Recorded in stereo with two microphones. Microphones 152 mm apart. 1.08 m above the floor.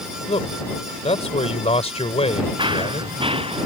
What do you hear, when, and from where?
0.3 s a man speaking: 45° left (ahead or behind)
2.6 s running footsteps: 30° right (ahead or behind); by 3.7 s 40° right (ahead or behind)